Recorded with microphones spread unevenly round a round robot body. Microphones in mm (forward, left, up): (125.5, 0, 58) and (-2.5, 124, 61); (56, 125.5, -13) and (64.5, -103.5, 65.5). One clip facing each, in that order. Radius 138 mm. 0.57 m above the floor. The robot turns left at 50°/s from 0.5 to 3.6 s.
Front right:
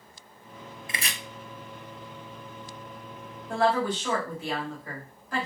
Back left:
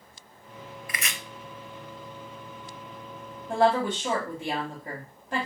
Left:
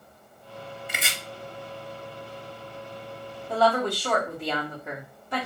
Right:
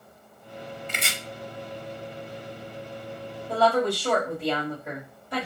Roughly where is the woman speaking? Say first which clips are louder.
Back left 2 dB, right 1 dB; behind.